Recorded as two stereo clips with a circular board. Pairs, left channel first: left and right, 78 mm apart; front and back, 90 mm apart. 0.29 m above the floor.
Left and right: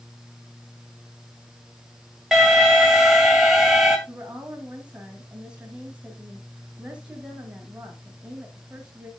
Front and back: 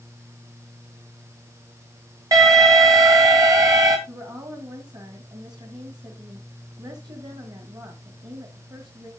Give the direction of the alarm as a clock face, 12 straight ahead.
6 o'clock.